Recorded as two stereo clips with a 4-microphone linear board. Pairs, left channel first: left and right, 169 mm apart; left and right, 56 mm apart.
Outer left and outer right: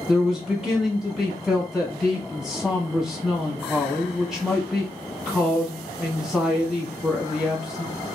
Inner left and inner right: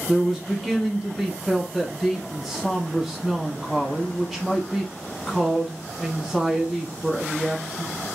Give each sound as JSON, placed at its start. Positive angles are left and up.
{"t": 0.1, "sound": "a man speaking", "side_deg": -5, "distance_m": 1.0}